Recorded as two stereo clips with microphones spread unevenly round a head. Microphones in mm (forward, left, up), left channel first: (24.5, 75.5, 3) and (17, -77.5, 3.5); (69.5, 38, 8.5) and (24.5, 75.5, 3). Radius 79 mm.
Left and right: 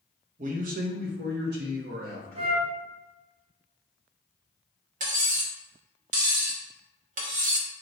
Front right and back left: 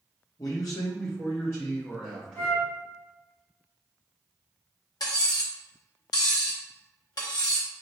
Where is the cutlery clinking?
55° right, 0.9 m.